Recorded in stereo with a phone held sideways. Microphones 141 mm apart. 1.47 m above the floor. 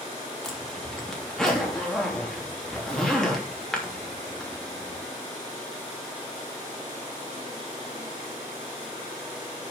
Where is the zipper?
5° left (ahead or behind), 3 m.